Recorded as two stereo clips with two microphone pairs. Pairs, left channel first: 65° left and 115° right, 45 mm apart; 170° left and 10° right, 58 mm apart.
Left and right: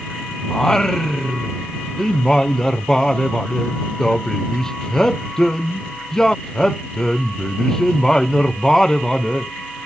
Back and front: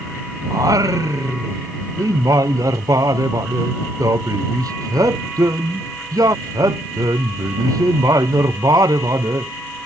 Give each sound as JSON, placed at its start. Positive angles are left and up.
{"t": 0.5, "sound": "singing", "azimuth_deg": -15}